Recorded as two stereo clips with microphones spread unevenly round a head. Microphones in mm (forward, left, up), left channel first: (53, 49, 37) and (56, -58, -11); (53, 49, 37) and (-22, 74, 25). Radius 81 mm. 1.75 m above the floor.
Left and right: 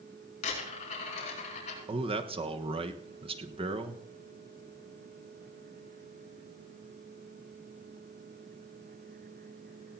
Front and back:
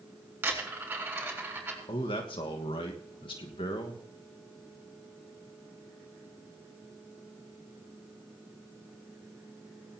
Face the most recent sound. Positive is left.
turn(degrees=-45)